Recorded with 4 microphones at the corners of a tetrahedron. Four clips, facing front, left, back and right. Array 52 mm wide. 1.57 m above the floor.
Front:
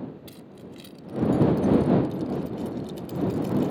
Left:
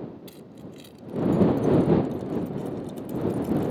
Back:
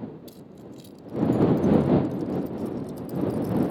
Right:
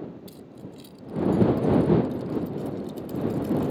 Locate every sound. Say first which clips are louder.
0.3 s keys jangling: even, even; 35° left; by 3.7 s straight ahead